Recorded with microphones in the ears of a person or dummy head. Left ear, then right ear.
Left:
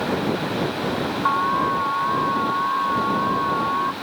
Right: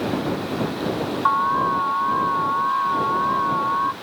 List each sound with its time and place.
1.2 s an alarm: 10° right (ahead or behind)